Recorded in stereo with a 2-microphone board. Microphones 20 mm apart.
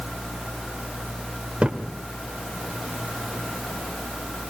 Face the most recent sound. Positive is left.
turn(degrees=-50)  # may be behind; listen again after turning